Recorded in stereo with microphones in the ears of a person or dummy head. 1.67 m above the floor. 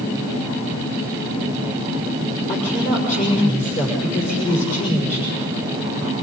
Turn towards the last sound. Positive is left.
turn(degrees=40)  # may be behind; listen again after turning